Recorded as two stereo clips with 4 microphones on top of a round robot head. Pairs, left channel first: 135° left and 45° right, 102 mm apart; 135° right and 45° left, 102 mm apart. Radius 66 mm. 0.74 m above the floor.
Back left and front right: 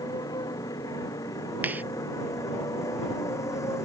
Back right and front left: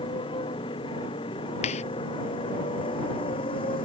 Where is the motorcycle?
170° right; by 3.9 s 165° right.